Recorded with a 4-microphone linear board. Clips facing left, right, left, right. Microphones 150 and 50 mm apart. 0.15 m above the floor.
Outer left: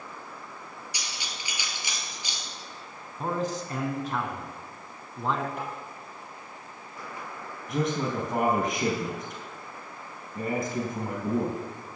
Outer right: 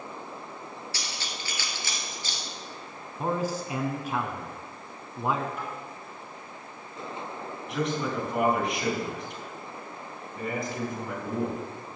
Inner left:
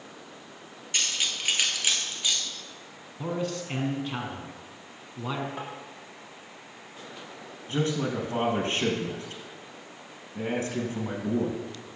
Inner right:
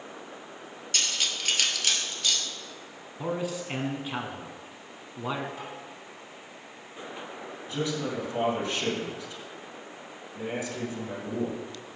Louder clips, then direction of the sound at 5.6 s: Outer left 1 dB, inner left 3 dB; 60° left (ahead or behind).